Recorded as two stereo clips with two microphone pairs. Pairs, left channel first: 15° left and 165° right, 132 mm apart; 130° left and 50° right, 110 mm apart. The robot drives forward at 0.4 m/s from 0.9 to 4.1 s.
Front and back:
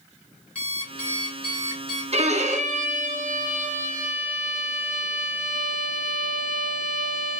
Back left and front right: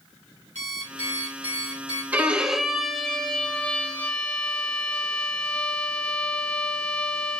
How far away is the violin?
About 0.7 m.